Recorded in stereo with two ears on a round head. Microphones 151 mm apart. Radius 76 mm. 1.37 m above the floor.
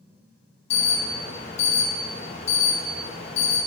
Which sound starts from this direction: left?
An alarm, at 0.7 s.